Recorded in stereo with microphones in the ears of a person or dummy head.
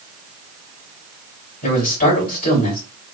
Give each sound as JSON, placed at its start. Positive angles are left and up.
{"t": 1.6, "sound": "a man speaking", "side_deg": 50, "distance_m": 3.0}